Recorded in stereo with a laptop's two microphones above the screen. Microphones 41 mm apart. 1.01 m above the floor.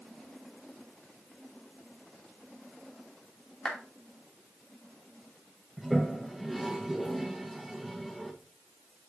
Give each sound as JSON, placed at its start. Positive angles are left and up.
{"t": 3.6, "sound": "a clap", "side_deg": 20, "distance_m": 2.5}
{"t": 5.8, "sound": "a toilet flushing", "side_deg": 0, "distance_m": 1.0}